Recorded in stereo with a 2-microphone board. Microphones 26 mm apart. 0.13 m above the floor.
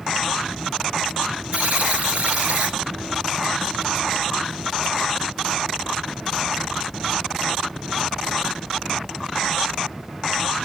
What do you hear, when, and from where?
1.5 s a buzzer: 55° right (ahead or behind), 3 m